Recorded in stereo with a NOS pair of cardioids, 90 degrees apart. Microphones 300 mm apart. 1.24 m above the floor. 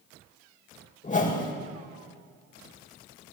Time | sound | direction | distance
1.0 | a whoosh | 25° left | 6.5 m